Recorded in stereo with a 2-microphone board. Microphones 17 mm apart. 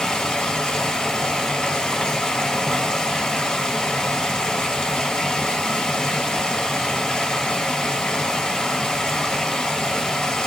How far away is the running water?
About 2.5 m.